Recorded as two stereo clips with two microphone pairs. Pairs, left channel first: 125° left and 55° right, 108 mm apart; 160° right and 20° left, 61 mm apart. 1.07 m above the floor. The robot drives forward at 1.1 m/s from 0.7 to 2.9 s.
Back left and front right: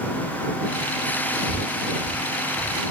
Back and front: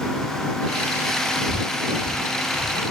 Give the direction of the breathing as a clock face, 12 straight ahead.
3 o'clock.